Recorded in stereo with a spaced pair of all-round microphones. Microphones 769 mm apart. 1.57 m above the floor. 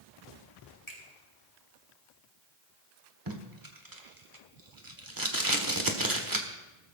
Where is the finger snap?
25° left (ahead or behind), 4 m.